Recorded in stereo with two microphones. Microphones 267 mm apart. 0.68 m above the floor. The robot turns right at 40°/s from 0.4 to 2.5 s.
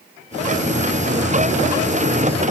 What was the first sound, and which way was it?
Only background noise.